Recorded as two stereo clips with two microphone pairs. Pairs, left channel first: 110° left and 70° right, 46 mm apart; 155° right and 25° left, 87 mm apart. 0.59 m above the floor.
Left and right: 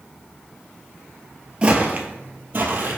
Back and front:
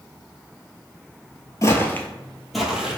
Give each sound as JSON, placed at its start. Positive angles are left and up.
{"t": 1.6, "sound": "footsteps", "azimuth_deg": -115, "distance_m": 0.8}